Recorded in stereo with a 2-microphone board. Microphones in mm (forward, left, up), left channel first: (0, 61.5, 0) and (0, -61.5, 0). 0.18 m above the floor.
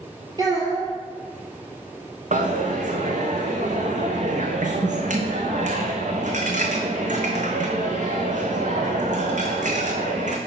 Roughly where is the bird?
I don't hear a bird.